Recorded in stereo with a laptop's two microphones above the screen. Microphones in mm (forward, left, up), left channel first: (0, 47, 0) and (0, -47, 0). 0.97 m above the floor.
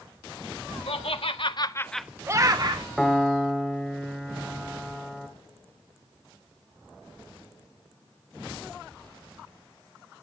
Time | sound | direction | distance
0.9 | laughter | 75° left (ahead or behind) | 1.8 m
3.0 | a piano | 5° left (ahead or behind) | 1.5 m